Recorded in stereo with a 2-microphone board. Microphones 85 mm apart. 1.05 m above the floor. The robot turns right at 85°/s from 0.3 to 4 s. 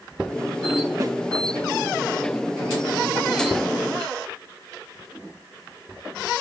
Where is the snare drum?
40° right (ahead or behind), 1.6 m; by 1.1 s 50° right (ahead or behind), 1.6 m.